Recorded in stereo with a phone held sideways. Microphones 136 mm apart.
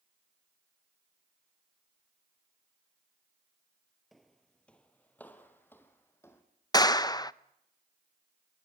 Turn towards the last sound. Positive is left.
turn(degrees=30)  # may be behind; listen again after turning